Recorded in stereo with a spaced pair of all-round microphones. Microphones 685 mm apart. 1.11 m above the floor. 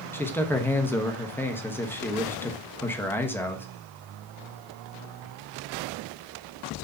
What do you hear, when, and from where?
0.1 s a man speaking: 5° left (ahead or behind), 0.9 m